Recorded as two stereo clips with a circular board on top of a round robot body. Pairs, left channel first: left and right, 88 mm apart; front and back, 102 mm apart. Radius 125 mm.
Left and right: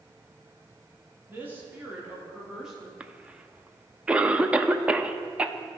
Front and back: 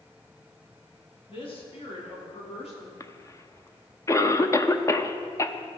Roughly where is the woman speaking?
Ahead right.